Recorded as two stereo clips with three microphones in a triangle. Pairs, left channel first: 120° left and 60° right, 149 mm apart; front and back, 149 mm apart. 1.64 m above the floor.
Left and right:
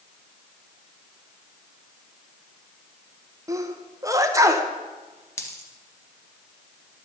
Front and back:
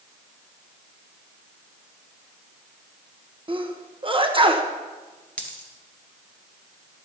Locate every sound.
3.5 s a sneeze: 130° right, 1.1 m
5.4 s a dropped coin: 75° left, 1.8 m